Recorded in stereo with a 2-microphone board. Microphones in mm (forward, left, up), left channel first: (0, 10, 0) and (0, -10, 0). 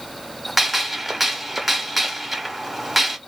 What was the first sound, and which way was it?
A gunshot, 10° right (ahead or behind).